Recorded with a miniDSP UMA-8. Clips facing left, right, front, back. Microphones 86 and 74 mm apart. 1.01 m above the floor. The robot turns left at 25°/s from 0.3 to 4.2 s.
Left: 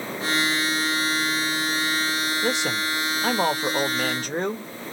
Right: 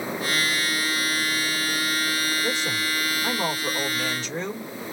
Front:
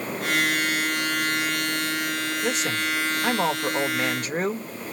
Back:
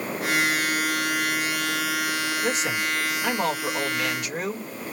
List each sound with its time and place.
2.4 s a man speaking: 95° left, 0.9 m; by 4.7 s 50° left, 0.9 m